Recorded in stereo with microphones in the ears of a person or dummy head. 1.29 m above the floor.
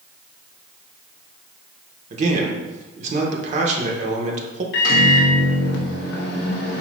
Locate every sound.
2.1 s a man speaking: 50° right (ahead or behind), 1.1 m
4.7 s a microwave: 70° left (ahead or behind), 0.8 m